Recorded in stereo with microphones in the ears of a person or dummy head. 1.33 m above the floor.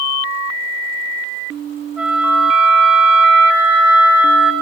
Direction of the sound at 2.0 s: 10° right (ahead or behind).